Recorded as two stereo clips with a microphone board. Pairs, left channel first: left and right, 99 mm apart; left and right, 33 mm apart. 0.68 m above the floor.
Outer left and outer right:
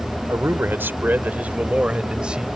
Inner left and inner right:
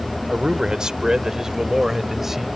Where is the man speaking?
25° right (ahead or behind); by 2.5 s 10° right (ahead or behind).